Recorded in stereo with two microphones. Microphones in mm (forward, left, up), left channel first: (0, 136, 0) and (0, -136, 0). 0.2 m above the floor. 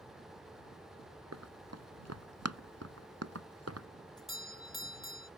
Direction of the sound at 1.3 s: 75° right (ahead or behind).